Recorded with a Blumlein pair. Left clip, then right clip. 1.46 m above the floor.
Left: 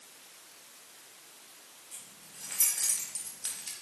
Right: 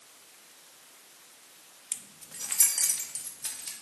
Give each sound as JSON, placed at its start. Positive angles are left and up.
{"t": 1.9, "sound": "keys jangling", "azimuth_deg": -50, "distance_m": 0.9}